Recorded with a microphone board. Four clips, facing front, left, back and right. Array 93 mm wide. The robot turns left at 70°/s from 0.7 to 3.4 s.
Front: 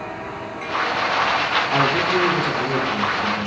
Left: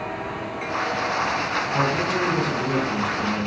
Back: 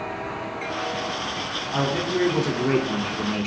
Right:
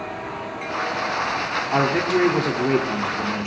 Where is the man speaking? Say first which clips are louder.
Right 5 dB, front 3 dB; 55° right, 3 m; by 3.5 s 175° right, 3 m.